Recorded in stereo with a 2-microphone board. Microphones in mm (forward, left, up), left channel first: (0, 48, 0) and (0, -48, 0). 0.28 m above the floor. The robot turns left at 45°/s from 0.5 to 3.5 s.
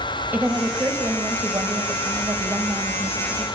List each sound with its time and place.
0.3 s a woman speaking: 35° right, 1.2 m; by 3.5 s 165° right, 1.2 m